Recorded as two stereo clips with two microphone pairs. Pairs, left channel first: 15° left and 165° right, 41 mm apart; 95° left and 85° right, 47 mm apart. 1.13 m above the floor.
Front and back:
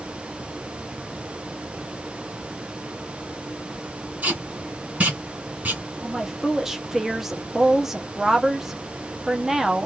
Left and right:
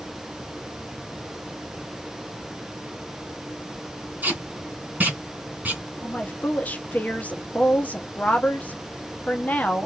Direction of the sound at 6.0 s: 120° left.